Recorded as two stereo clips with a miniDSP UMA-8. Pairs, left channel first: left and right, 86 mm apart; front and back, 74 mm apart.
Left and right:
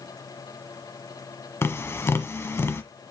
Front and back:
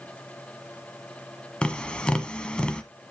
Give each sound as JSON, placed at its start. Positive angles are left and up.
{"t": 1.6, "sound": "tapping", "azimuth_deg": 65, "distance_m": 1.1}